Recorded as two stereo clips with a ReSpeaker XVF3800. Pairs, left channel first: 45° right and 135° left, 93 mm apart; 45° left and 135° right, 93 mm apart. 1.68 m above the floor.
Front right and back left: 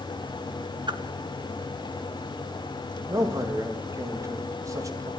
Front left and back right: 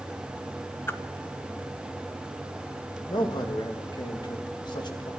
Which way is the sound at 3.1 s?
80° left.